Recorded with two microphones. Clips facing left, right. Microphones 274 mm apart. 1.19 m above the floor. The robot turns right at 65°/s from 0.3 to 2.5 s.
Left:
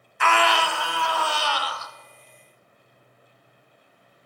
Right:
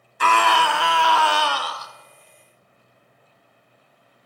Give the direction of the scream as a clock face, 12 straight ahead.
5 o'clock.